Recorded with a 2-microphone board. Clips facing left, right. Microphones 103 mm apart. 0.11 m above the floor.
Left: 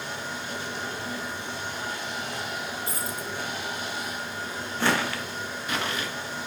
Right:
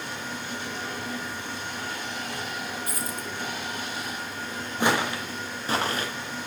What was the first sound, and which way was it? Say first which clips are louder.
Running water: even; 35° left (ahead or behind).